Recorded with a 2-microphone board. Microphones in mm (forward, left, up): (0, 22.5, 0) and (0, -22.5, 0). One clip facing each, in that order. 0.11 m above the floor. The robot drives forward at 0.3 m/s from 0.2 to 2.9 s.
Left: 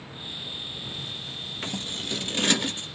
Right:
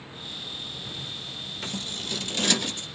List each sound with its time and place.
1.6 s scissors: 25° left (ahead or behind), 1.6 m